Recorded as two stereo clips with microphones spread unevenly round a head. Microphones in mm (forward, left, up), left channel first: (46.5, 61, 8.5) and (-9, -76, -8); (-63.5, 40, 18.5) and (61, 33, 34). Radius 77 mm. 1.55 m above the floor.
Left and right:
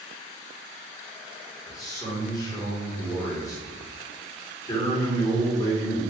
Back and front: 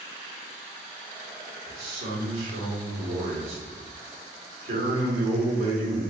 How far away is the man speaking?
About 1.6 m.